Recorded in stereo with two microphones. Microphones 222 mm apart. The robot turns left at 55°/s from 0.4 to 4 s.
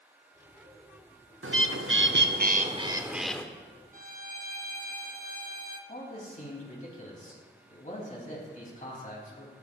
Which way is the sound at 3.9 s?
40° right (ahead or behind).